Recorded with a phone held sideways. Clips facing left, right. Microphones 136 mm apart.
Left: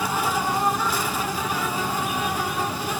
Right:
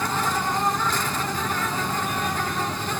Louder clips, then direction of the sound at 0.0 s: Left 1 dB; 10° left (ahead or behind).